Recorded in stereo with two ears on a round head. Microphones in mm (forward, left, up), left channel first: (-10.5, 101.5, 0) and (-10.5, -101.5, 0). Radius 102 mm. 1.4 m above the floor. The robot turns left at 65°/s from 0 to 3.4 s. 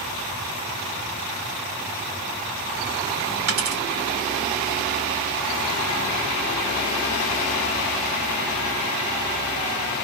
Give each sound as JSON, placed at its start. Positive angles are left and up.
{"t": 3.5, "sound": "a dropped coin", "side_deg": -55, "distance_m": 2.0}